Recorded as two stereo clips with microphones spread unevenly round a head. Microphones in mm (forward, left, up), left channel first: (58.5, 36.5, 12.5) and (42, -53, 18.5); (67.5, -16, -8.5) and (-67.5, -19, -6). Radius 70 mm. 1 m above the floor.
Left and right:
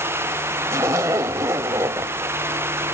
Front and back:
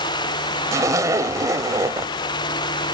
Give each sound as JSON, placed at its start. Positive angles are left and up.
{"t": 0.7, "sound": "a zipper", "azimuth_deg": -135, "distance_m": 0.9}